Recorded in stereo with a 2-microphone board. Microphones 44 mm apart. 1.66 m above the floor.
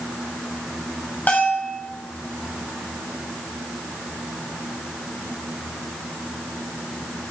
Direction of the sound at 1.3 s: 40° left (ahead or behind).